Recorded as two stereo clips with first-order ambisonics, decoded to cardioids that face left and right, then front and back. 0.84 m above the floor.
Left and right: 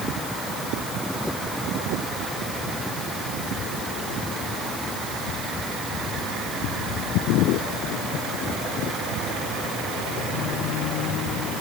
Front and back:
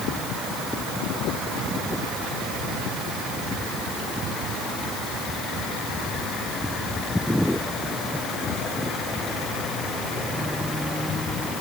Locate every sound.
Only background noise.